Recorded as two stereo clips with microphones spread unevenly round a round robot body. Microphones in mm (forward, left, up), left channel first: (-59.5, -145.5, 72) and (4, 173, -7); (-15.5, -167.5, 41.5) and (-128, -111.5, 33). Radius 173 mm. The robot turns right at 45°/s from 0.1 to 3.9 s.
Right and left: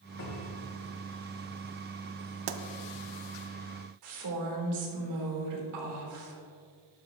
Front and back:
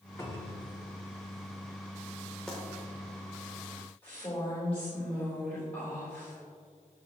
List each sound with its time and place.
0.2 s a cupboard door: 95° right, 2.5 m; by 0.7 s 70° right, 2.5 m
2.5 s a pop: 55° left, 0.6 m; by 2.6 s 65° left, 0.6 m
4.0 s a woman speaking: 55° left, 3.5 m